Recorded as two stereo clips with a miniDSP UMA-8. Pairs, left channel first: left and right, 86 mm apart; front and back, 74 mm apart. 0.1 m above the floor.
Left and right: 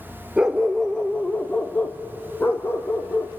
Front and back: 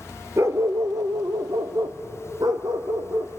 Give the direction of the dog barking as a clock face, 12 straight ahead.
5 o'clock.